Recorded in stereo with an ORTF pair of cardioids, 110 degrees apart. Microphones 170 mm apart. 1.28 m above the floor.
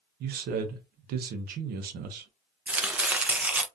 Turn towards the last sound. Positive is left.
turn(degrees=-10)